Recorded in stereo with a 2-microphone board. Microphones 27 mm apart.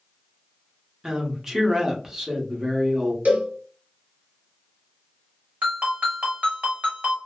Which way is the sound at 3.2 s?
70° right (ahead or behind).